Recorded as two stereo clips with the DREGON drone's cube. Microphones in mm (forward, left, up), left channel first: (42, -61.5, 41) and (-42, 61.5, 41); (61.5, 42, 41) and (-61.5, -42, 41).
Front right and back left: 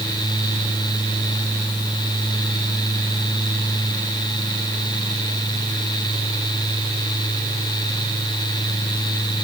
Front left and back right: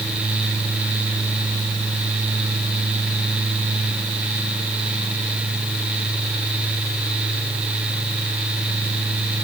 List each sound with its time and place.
Only background noise.